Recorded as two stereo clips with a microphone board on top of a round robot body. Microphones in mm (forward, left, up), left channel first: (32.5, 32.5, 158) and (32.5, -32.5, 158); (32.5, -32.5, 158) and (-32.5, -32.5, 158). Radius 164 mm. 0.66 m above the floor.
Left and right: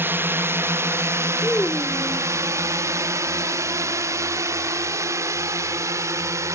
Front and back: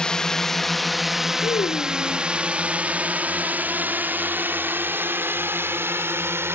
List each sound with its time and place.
0.0 s a drone: 70° right; by 6.6 s 130° right
1.4 s a child speaking: 15° left